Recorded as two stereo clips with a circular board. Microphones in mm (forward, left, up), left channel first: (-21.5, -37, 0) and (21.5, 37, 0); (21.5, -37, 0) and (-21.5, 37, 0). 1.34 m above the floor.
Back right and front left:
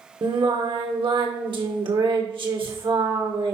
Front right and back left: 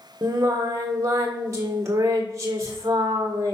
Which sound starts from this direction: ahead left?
Singing, at 0.2 s.